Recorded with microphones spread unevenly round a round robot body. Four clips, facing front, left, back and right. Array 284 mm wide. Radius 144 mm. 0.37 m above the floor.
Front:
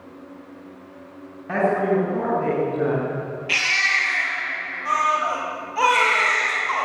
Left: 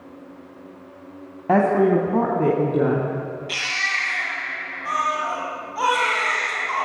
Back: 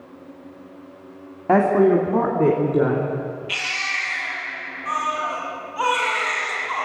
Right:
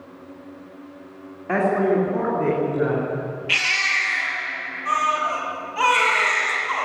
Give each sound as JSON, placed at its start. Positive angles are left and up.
{"t": 1.5, "sound": "a woman speaking", "azimuth_deg": 140, "distance_m": 2.5}
{"t": 3.5, "sound": "a baby crying", "azimuth_deg": -10, "distance_m": 6.5}